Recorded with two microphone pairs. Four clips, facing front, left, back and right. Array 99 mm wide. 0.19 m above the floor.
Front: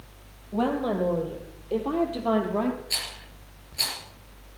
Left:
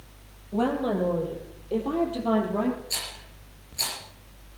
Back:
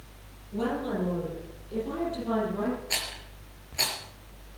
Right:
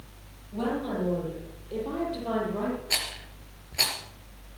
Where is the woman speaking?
35° left, 5.5 m; by 2.8 s 20° left, 5.5 m.